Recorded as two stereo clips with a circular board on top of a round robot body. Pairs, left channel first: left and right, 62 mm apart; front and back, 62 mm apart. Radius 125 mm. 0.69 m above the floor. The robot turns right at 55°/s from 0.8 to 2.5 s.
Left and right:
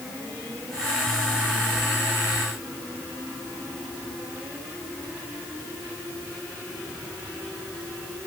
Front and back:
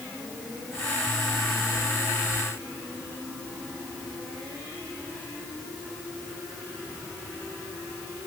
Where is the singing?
I don't hear singing.